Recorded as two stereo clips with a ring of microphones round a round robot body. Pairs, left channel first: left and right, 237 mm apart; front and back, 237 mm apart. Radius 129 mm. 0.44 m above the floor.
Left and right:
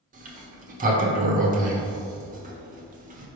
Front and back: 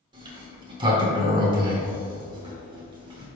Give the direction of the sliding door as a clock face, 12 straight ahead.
4 o'clock.